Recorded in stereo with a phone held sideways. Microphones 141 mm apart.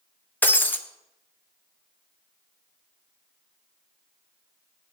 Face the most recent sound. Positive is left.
turn(degrees=10)  # may be behind; listen again after turning